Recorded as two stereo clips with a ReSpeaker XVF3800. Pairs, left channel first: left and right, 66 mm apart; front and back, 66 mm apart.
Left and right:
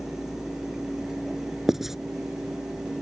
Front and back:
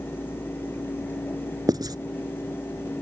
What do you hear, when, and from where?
1.7 s writing: 175° right